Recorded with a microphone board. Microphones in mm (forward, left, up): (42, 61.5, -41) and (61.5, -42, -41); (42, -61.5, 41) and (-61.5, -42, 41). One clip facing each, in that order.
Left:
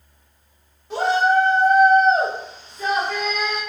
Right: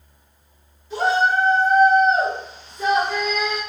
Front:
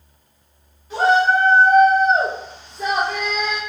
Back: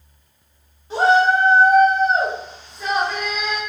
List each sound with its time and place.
0.9 s a shout: 110° left, 1.5 m; by 3.6 s 30° right, 1.5 m